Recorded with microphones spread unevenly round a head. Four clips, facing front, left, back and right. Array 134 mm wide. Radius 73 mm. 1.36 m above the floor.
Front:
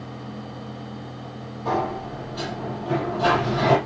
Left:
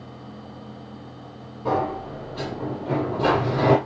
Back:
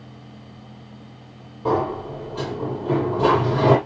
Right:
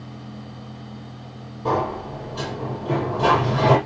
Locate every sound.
1.6 s a sliding door: 175° right, 6 m